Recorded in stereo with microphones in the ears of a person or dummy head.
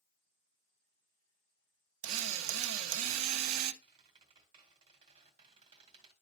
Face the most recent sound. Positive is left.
turn(degrees=-25)  # may be behind; listen again after turning